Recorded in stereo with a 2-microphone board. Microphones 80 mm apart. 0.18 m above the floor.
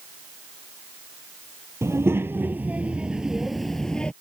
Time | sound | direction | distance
1.8 | a child speaking | 35° right (ahead or behind) | ?